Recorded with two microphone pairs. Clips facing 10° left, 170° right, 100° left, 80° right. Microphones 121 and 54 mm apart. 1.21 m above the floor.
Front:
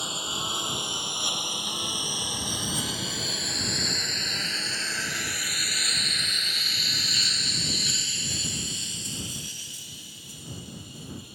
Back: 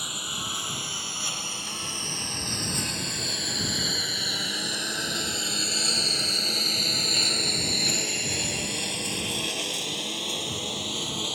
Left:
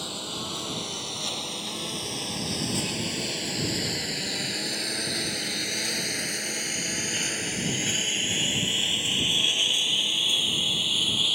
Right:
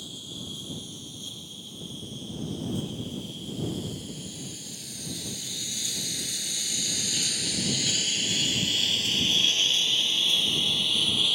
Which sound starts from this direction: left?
A lawn mower, at 0.0 s.